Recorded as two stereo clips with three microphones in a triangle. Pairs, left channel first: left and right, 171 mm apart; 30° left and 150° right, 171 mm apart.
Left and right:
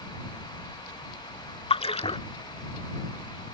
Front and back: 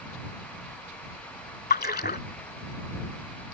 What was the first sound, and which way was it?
A splash, 40° left.